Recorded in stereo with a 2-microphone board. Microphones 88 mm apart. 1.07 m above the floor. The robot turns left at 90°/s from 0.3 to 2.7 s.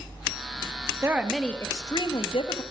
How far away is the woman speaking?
About 1.5 m.